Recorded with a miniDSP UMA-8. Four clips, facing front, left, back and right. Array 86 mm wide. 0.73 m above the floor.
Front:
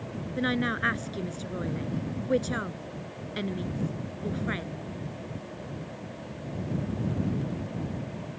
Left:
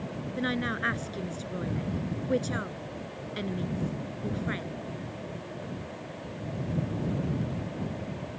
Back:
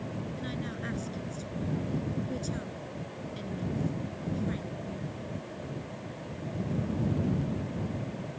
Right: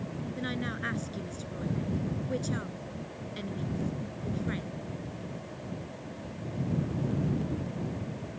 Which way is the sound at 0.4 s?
30° left.